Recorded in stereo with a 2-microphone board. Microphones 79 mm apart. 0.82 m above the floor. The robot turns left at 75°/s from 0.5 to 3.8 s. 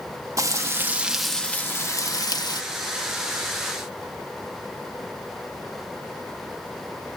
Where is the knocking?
No knocking in this recording.